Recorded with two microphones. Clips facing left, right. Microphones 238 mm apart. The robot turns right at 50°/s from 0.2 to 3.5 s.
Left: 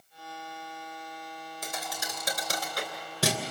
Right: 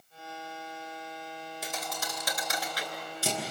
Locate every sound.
1.6 s a thud: 10° right (ahead or behind), 3 m; by 3.4 s 80° left, 3 m